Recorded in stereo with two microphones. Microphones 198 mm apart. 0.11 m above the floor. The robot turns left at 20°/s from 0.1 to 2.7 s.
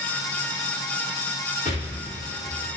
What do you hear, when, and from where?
1.6 s an explosion: 40° left (ahead or behind), 1.4 m; by 2.8 s 60° left (ahead or behind), 1.4 m